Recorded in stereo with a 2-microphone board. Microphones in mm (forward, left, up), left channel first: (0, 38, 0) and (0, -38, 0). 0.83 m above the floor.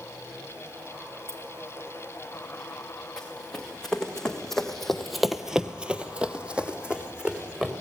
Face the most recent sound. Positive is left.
turn(degrees=-15)  # may be behind; listen again after turning